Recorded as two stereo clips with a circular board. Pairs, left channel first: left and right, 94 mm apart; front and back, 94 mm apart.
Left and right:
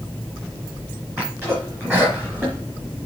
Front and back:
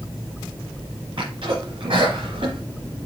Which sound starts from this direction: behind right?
A sneeze, at 1.2 s.